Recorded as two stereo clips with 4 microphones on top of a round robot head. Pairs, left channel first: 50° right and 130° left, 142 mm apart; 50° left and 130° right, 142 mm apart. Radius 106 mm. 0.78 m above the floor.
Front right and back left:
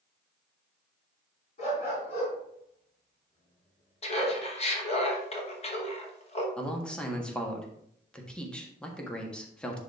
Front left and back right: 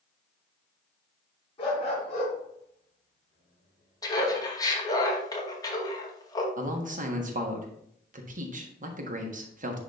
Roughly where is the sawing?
No sawing in this recording.